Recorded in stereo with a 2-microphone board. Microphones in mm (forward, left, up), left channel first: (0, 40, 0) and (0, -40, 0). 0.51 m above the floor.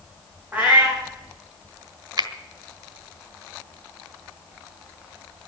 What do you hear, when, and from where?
0.5 s a cat meowing: 20° right (ahead or behind), 5.5 m
2.2 s a finger snap: 65° right (ahead or behind), 1.4 m